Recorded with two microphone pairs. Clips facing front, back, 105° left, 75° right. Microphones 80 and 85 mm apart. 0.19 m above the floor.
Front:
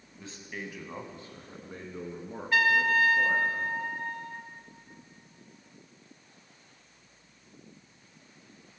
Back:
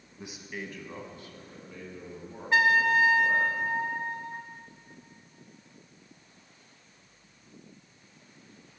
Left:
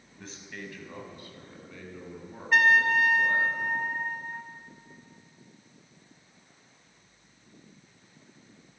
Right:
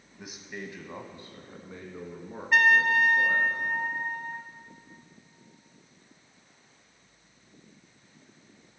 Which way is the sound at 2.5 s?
155° right.